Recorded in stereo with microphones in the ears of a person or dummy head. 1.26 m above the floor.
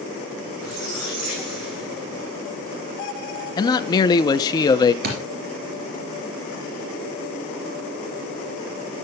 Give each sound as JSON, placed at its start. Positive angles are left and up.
{"t": 0.6, "sound": "a squeak", "side_deg": -80, "distance_m": 6.5}
{"t": 3.6, "sound": "a man speaking", "side_deg": 25, "distance_m": 0.7}
{"t": 5.0, "sound": "a thud", "side_deg": -50, "distance_m": 3.0}